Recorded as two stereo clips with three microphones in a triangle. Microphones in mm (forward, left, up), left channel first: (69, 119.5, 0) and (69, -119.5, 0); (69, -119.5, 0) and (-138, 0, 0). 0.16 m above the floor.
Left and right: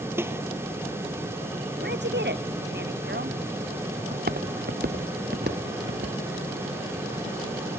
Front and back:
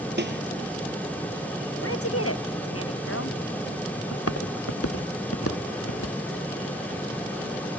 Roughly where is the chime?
I don't hear a chime.